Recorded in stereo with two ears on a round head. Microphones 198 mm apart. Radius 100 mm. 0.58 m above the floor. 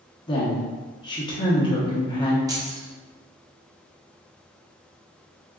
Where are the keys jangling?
15° right (ahead or behind), 0.5 m.